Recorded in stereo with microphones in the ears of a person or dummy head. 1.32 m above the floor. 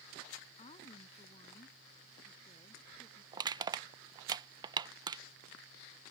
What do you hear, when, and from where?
0.6 s a woman speaking: 35° left (ahead or behind); by 3.2 s 30° left (ahead or behind)
3.3 s crushing: 25° right (ahead or behind)